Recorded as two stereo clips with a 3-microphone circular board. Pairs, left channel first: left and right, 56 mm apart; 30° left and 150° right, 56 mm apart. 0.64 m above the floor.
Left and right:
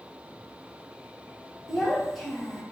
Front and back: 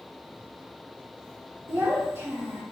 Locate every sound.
1.7 s a child speaking: 175° left, 1.0 m